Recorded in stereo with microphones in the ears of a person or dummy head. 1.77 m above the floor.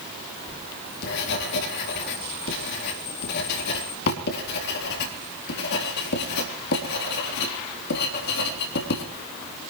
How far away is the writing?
About 3.5 m.